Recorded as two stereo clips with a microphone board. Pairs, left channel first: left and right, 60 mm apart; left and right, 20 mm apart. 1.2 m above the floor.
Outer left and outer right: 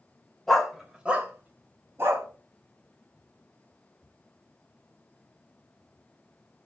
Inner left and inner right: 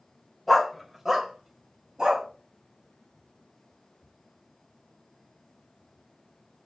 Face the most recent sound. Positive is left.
turn(degrees=-45)  # may be behind; listen again after turning